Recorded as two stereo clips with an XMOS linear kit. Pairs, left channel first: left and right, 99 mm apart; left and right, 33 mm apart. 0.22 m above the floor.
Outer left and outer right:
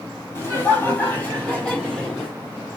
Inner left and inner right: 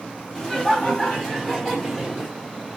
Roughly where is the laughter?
Left.